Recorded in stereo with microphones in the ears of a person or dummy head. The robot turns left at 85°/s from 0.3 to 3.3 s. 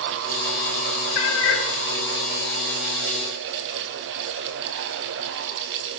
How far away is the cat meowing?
About 1.1 m.